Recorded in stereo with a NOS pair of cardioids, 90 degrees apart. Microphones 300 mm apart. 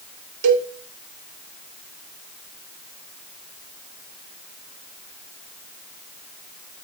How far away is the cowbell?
About 2.5 m.